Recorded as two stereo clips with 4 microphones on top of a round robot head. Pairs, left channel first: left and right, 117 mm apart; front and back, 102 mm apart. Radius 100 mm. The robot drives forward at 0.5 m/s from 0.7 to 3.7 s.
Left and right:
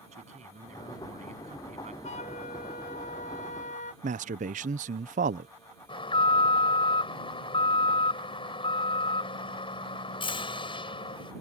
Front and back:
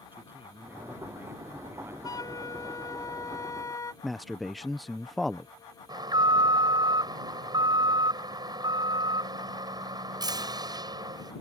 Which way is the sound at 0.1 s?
105° right.